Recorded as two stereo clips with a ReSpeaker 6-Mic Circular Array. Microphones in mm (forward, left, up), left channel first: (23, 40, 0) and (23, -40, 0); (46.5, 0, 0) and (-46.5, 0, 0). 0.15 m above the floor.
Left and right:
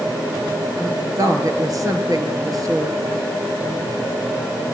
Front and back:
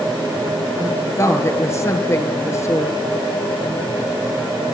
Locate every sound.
0.8 s a woman speaking: 55° right, 3.5 m